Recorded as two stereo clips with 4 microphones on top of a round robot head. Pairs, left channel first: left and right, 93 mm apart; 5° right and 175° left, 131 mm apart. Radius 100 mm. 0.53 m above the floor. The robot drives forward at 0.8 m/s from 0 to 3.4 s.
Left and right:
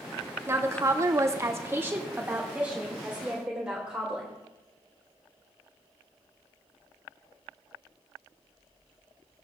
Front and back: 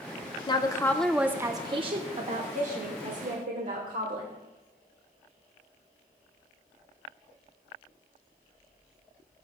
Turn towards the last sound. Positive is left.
turn(degrees=-170)